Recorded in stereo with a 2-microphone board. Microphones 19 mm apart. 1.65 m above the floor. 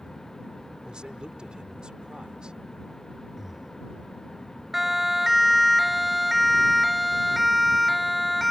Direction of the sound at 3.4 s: 20° right (ahead or behind).